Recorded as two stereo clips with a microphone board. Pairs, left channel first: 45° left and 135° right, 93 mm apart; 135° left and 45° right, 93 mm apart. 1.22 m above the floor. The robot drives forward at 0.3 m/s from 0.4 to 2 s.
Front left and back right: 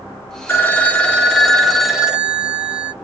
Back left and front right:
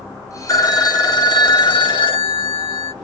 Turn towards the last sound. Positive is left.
turn(degrees=140)